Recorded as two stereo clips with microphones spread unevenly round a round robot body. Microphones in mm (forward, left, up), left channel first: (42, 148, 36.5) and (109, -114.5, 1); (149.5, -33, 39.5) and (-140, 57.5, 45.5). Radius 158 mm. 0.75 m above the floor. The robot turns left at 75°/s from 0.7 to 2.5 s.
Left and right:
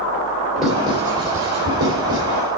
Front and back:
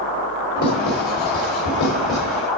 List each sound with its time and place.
0.6 s writing: 10° left, 3.5 m; by 2.4 s 110° right, 3.5 m